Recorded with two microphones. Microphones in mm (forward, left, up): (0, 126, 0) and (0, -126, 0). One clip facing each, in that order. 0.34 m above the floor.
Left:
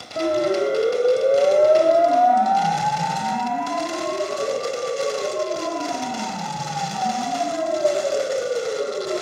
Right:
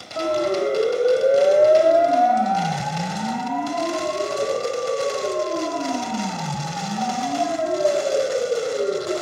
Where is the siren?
15° left (ahead or behind), 2.5 m; by 9.1 s 70° right (ahead or behind), 7 m.